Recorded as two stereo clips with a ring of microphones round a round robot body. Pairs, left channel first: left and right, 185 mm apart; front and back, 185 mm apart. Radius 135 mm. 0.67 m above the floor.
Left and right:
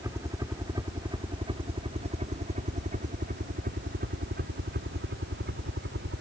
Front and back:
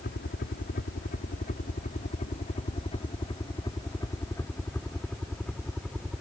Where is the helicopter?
20° right; by 6.2 s 95° right.